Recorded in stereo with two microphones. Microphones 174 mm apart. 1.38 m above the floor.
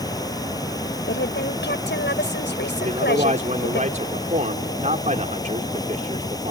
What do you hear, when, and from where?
0.0 s running water: 20° left (ahead or behind)
1.1 s a woman speaking: 85° left
2.8 s a man speaking: 45° right (ahead or behind)